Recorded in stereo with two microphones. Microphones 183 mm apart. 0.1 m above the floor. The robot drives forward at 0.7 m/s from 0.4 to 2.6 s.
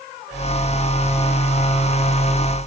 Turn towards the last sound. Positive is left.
No sound to turn to.